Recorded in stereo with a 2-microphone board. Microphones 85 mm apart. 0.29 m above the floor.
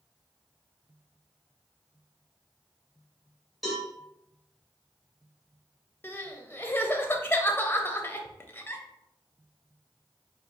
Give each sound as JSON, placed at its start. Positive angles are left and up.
{"t": 3.6, "sound": "a cowbell", "side_deg": 0, "distance_m": 2.0}
{"t": 6.0, "sound": "crying", "side_deg": 25, "distance_m": 0.5}